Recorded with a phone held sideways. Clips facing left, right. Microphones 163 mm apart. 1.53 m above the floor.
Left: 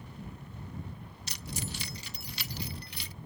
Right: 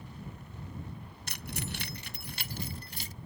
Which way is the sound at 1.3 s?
60° right (ahead or behind).